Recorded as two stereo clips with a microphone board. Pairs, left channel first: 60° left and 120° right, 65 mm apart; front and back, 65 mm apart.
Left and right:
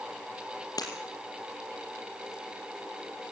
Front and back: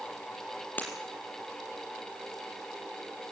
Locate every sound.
0.8 s breaking glass: 65° left, 4 m